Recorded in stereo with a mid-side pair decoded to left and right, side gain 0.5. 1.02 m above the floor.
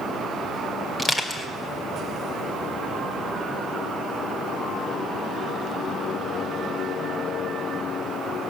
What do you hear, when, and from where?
1.0 s crushing: 15° left, 1.9 m